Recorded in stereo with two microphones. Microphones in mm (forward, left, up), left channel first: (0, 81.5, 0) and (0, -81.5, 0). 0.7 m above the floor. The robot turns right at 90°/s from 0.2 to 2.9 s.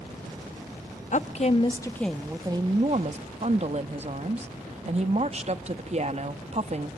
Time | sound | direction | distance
1.1 | a woman speaking | 90° left | 0.6 m